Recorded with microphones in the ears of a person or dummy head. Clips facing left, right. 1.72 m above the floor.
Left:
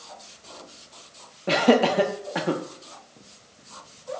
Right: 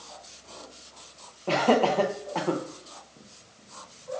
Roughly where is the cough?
No cough in this recording.